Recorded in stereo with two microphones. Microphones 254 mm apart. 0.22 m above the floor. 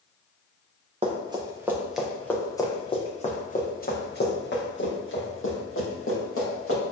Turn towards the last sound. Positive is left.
turn(degrees=55)  # may be behind; listen again after turning